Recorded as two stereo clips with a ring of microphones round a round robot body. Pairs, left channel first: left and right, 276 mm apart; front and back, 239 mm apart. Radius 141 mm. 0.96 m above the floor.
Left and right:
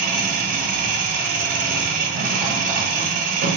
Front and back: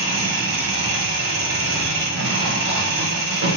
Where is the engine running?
145° right, 0.8 m.